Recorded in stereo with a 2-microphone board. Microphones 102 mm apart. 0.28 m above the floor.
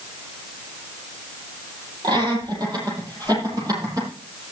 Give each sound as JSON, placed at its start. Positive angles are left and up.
{"t": 2.0, "sound": "laughter", "side_deg": -45, "distance_m": 9.5}